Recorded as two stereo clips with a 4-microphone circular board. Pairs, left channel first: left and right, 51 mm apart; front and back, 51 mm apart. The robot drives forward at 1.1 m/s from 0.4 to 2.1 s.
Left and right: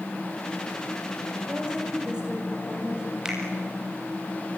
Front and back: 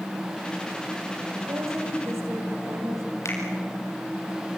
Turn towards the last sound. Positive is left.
turn(degrees=-15)